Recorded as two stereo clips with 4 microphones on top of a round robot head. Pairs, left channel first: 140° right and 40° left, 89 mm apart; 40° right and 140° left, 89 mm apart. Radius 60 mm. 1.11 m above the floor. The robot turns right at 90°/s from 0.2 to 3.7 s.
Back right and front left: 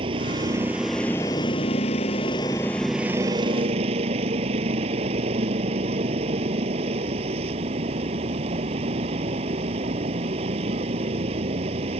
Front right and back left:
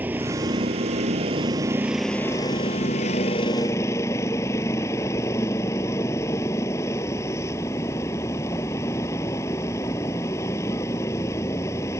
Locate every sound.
0.0 s a vehicle: 70° left; by 12.0 s 25° left